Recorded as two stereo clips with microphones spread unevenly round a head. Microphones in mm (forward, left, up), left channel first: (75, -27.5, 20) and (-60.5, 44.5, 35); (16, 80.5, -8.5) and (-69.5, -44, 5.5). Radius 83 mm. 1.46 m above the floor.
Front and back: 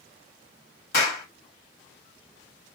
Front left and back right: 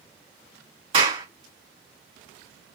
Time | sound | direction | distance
0.9 | a clap | 70° right | 1.7 m